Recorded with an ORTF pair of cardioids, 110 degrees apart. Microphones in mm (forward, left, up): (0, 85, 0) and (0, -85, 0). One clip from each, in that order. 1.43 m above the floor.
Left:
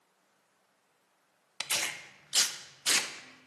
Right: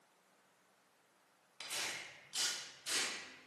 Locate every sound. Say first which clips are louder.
1.6 s tearing paper: left 9 dB; 65° left, 0.6 m